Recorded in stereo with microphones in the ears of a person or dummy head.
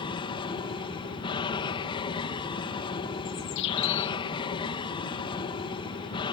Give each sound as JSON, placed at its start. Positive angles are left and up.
{"t": 0.0, "sound": "an aircraft", "side_deg": 20}
{"t": 3.2, "sound": "a bird", "side_deg": 65}